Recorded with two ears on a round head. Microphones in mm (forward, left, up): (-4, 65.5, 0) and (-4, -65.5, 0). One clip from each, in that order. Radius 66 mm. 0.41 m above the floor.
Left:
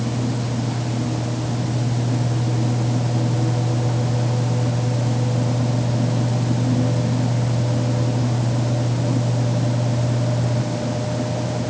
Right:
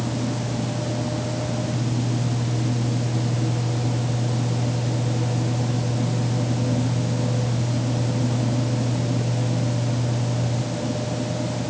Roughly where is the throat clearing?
No throat clearing in this recording.